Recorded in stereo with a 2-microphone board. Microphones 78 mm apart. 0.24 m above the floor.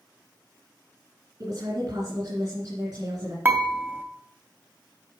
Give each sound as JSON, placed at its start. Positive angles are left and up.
{"t": 1.4, "sound": "a woman speaking", "side_deg": -55, "distance_m": 3.0}
{"t": 3.5, "sound": "dishes clattering", "side_deg": -25, "distance_m": 0.8}